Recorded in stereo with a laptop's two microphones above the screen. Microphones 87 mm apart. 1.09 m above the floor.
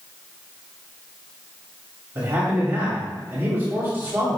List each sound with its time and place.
2.1 s a man speaking: 30° right (ahead or behind), 3 m